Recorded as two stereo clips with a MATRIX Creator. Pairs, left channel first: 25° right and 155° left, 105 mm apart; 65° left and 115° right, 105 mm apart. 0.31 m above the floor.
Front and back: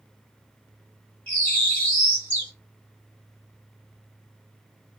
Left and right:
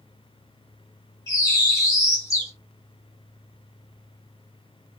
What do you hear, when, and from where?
1.3 s a bird: 40° left, 1.5 m